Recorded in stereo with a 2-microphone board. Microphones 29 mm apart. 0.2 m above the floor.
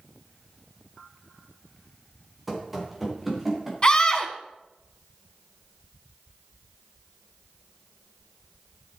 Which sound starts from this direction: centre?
Running footsteps, at 2.5 s.